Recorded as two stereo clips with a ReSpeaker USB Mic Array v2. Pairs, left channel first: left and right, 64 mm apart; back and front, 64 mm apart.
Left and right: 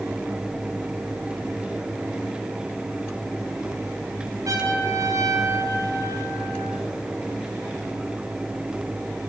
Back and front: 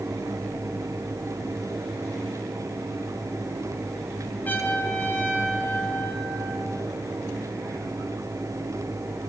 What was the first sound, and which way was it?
A trumpet, 120° right.